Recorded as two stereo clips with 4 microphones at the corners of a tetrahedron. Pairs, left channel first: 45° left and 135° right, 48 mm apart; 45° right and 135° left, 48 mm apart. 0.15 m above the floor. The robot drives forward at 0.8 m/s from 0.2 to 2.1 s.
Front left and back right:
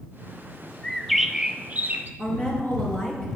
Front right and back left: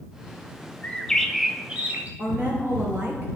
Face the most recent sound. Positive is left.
turn(degrees=90)